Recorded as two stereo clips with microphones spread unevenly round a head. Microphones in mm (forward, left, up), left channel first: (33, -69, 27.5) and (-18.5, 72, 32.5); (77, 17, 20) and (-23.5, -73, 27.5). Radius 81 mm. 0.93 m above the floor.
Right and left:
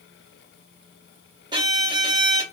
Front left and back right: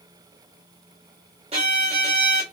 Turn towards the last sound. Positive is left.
turn(degrees=170)